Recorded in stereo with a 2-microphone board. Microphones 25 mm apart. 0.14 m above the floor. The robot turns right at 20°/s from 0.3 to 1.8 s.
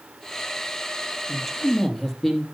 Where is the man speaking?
Centre (ahead or behind), 4.5 m; by 2.4 s 10° left (ahead or behind), 4.5 m.